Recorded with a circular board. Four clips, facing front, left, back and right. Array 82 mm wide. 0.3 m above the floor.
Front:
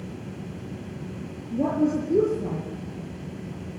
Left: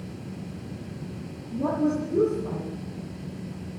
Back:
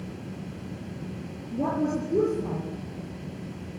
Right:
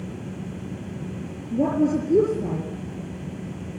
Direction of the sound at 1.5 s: 80° right.